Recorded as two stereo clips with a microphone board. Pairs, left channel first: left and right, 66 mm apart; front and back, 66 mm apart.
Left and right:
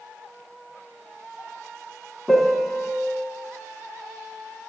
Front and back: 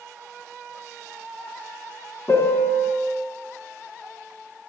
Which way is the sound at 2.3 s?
5° right.